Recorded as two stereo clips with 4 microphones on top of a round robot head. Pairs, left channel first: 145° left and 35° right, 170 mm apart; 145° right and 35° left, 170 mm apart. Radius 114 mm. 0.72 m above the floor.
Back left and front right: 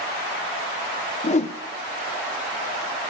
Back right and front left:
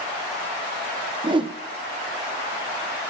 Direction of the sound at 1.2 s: 95° left.